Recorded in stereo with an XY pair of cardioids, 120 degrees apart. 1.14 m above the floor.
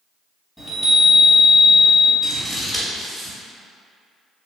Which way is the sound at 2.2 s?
15° right.